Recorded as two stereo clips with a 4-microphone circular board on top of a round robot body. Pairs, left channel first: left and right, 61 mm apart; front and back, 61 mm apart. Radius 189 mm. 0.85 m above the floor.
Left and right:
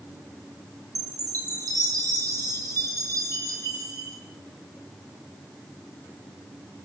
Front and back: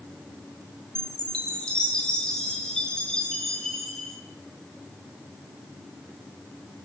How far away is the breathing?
I don't hear breathing.